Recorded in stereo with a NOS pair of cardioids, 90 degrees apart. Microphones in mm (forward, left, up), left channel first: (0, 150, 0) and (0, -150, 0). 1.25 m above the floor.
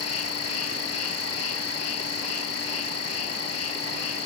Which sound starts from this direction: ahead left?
An insect, at 0.0 s.